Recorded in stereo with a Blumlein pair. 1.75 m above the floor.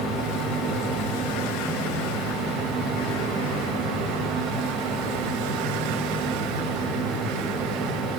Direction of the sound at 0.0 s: 25° right.